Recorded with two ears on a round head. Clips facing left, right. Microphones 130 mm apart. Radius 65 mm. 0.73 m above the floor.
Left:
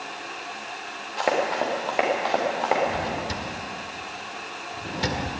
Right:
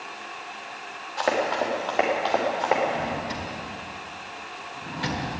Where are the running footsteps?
20° left (ahead or behind), 4.5 m; by 2.8 s 5° left (ahead or behind), 4.5 m.